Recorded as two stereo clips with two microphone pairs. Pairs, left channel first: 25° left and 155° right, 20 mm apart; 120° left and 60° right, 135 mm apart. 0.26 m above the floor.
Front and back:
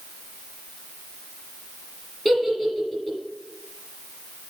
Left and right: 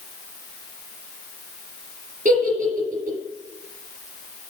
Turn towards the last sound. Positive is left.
turn(degrees=-50)